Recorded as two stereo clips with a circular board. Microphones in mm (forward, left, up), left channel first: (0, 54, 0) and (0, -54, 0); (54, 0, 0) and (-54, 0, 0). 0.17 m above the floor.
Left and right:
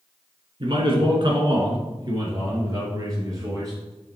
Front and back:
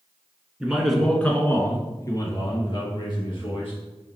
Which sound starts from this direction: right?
A man speaking, at 0.6 s.